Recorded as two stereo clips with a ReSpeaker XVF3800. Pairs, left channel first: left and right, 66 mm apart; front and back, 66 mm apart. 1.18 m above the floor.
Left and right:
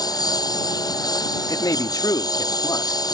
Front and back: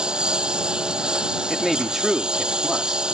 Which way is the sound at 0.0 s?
100° left.